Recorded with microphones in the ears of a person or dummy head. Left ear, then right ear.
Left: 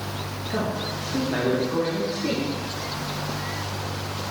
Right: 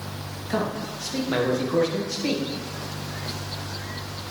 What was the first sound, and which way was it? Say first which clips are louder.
A man speaking: right 1 dB; 85° right.